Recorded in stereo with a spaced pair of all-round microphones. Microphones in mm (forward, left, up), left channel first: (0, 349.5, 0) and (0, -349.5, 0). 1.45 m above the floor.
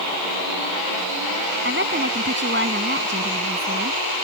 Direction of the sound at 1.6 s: 15° right (ahead or behind).